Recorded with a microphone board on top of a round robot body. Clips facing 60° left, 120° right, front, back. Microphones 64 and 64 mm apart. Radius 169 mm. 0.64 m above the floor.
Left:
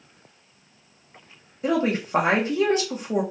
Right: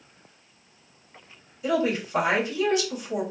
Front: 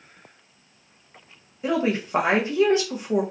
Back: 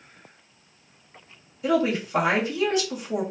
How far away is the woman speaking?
About 1.0 m.